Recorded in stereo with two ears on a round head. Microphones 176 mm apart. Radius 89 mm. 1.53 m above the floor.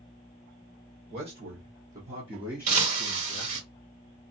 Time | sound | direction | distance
1.1 | a man speaking | 50° right (ahead or behind) | 1.4 m
2.7 | breaking glass | 50° right (ahead or behind) | 1.9 m